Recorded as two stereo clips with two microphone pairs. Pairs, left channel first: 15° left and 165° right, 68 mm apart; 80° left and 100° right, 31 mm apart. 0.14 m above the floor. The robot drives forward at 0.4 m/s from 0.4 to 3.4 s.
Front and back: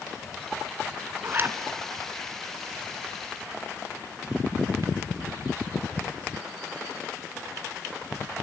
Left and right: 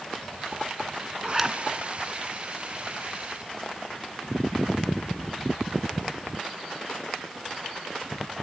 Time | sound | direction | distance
1.2 | a zipper | 170° right | 1.5 m